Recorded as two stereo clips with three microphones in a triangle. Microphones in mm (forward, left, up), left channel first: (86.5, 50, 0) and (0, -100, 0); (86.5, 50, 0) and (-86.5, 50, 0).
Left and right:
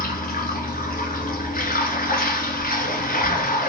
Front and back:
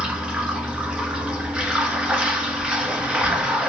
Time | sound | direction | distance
0.0 | running water | 95° left | 1.9 m